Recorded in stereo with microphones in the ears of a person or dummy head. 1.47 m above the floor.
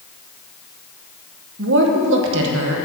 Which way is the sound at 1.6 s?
75° right (ahead or behind).